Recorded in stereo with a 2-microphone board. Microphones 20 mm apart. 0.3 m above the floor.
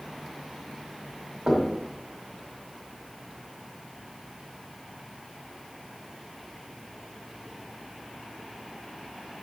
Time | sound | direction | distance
1.5 | knocking | 40° right (ahead or behind) | 1.7 m